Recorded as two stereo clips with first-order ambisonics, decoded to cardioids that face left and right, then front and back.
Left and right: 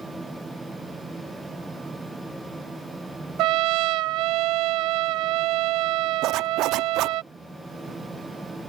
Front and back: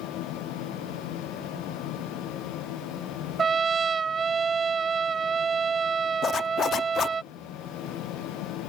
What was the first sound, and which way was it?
A trumpet, 110° right.